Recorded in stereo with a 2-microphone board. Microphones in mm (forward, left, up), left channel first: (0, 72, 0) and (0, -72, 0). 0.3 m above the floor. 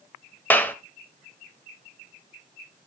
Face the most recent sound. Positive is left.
turn(degrees=10)  # may be behind; listen again after turning